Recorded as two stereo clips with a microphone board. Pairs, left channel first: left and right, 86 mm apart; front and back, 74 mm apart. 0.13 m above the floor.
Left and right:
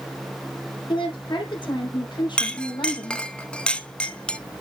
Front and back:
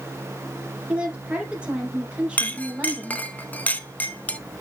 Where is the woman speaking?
105° left, 4 m.